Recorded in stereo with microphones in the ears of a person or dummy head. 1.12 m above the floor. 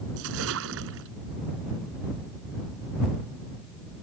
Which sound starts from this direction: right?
A splash, at 0.2 s.